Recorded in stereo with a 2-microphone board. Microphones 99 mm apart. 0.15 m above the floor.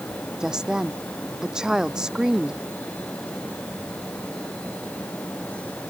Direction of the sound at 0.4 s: 5° right (ahead or behind).